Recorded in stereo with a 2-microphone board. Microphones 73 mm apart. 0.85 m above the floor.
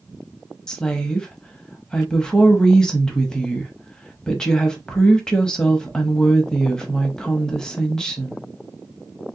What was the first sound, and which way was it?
A woman speaking, 10° left (ahead or behind).